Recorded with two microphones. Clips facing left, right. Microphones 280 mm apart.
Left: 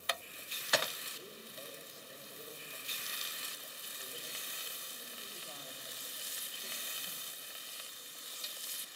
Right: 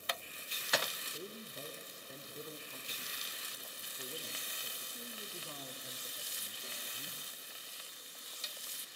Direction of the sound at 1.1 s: 55° right (ahead or behind).